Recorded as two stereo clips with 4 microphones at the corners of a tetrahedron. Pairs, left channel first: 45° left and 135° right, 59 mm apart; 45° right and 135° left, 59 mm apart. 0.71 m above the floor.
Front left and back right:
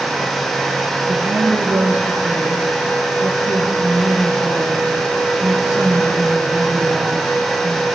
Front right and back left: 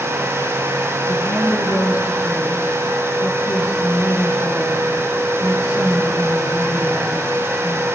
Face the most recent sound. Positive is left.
turn(degrees=-70)